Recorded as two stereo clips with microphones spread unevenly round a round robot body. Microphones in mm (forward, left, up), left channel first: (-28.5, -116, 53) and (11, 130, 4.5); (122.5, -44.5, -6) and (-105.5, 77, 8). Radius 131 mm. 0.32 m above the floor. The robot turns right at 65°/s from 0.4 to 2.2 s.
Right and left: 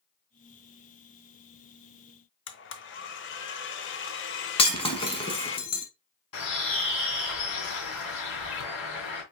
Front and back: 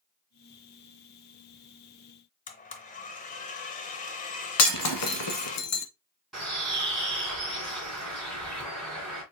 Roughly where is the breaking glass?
Ahead right.